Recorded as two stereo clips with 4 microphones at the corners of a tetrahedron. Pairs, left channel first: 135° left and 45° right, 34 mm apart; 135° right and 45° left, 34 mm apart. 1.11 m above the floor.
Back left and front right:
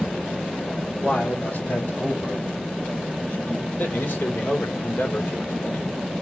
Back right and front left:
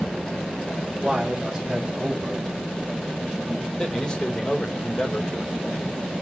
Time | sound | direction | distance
1.0 | a man speaking | 120° left | 5.5 m
3.8 | a man speaking | 155° left | 3.5 m